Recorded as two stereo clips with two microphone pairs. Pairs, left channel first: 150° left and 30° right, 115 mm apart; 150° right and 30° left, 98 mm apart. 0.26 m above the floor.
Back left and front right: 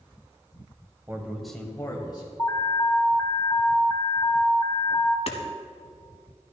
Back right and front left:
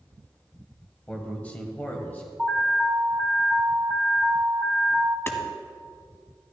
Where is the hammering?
150° left, 1.1 m.